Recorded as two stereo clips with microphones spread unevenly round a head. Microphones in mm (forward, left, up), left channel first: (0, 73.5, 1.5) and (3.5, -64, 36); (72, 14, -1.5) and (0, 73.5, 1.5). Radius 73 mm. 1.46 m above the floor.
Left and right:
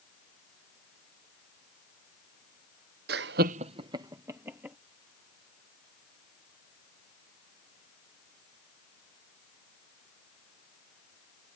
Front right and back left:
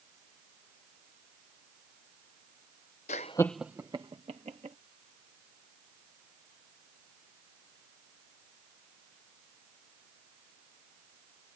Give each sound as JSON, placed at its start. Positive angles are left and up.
{"t": 3.1, "sound": "laughter", "azimuth_deg": -70}